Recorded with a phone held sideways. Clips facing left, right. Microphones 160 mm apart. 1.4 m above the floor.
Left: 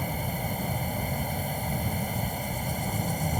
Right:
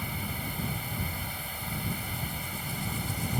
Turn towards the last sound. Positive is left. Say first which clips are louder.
# left 5 dB
turn(degrees=45)  # may be behind; listen again after turning